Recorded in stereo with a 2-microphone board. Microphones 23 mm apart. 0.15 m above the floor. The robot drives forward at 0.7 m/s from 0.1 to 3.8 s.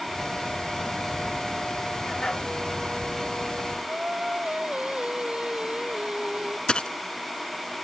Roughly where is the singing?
Right.